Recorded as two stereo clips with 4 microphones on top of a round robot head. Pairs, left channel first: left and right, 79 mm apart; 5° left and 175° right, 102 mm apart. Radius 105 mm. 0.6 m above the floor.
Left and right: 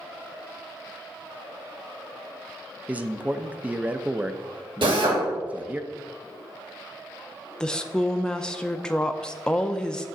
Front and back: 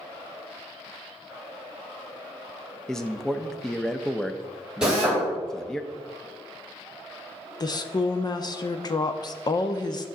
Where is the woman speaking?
15° left, 0.7 m.